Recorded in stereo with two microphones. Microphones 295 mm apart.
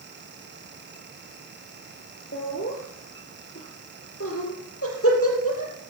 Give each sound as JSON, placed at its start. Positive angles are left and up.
{"t": 2.3, "sound": "laughter", "side_deg": 40, "distance_m": 3.5}